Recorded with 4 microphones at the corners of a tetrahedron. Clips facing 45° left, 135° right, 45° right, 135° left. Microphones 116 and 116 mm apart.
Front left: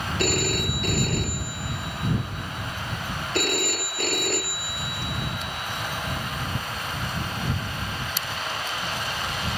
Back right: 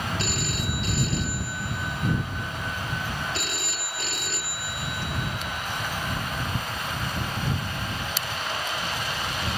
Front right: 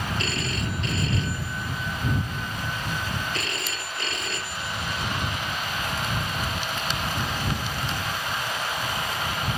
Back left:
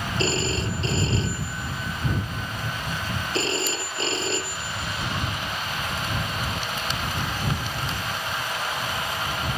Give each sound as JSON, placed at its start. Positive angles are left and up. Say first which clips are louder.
{"t": 0.2, "sound": "a phone ringing", "louder": "front left 5 dB, back left 4 dB", "azimuth_deg": 75}